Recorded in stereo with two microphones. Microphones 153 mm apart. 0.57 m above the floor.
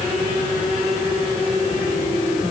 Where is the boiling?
No boiling in this recording.